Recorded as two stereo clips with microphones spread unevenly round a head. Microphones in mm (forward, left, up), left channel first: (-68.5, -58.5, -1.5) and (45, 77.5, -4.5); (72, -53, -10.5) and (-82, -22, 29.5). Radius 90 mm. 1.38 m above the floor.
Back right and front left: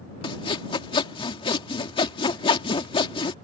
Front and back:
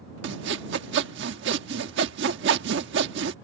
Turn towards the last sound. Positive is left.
turn(degrees=165)